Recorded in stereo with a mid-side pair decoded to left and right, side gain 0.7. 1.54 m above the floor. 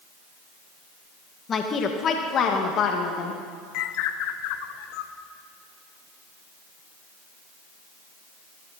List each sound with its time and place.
1.5 s a woman speaking: 30° left, 1.8 m; by 3.4 s 50° left, 2.5 m
3.7 s a bird: 70° left, 1.1 m